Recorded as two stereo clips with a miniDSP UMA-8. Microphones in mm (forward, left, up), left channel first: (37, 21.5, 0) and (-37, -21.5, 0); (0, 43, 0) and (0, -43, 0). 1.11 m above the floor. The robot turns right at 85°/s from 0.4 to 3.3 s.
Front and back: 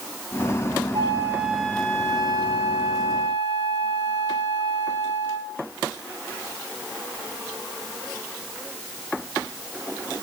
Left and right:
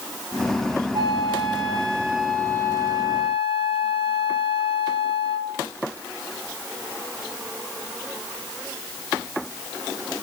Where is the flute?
110° right, 1.0 m; by 5.6 s 90° left, 1.0 m.